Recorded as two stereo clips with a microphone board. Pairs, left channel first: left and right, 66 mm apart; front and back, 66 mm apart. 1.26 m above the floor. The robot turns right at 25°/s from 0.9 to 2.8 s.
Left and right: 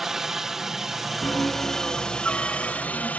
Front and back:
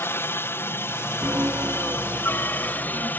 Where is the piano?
130° left; by 3.1 s 170° left.